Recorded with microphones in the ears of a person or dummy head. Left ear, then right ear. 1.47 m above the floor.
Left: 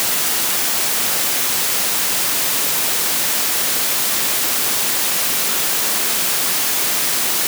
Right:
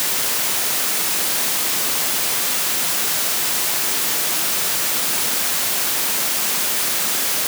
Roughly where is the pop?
I don't hear a pop.